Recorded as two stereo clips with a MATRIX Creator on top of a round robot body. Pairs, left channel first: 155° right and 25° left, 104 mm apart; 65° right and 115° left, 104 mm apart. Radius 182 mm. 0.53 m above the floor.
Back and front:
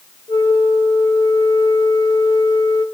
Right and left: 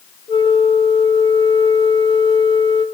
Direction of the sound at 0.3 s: 105° right.